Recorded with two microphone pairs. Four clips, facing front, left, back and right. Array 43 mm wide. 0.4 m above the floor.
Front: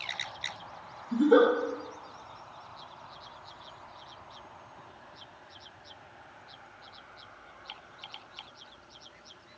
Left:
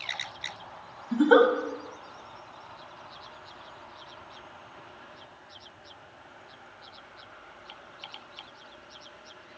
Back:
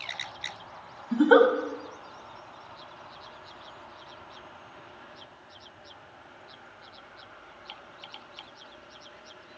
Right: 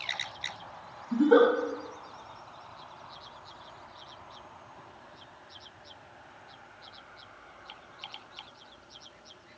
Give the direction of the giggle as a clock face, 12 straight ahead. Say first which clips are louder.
Left 2 dB, back 3 dB; 7 o'clock.